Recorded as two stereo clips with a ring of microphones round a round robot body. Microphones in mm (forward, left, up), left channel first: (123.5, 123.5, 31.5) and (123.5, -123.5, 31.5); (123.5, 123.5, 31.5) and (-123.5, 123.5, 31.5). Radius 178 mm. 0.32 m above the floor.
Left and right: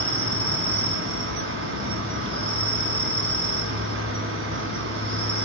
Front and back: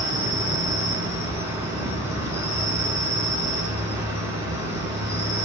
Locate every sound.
0.0 s an insect: 55° right, 1.8 m